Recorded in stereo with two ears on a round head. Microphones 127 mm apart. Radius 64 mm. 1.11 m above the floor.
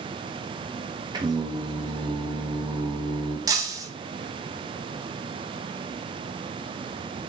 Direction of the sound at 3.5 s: 25° right (ahead or behind).